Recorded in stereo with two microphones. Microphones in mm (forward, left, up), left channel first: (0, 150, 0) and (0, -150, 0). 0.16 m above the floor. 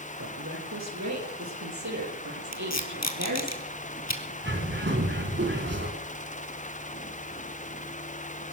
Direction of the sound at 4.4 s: 40° right (ahead or behind).